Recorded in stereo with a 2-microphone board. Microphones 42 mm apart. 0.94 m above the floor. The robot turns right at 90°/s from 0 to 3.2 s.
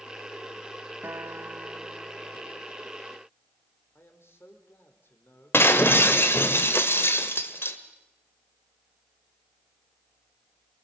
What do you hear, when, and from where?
1.0 s a guitar: 105° right, 1.1 m; by 2.6 s 35° left, 1.1 m
4.0 s a man speaking: 75° left (ahead or behind), 4 m
5.5 s breaking glass: 75° left (ahead or behind), 1.7 m